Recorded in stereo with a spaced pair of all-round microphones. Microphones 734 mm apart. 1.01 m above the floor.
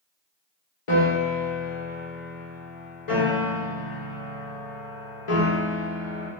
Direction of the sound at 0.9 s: 45° left (ahead or behind).